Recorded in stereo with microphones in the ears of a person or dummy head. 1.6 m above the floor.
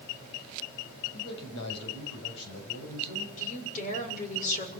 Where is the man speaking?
65° left (ahead or behind), 8 m.